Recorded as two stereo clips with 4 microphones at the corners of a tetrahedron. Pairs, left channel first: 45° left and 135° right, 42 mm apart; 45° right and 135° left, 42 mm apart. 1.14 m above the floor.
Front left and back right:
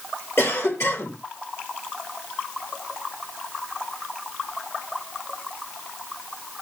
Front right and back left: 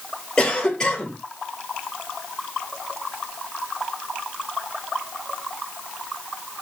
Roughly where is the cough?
Ahead left.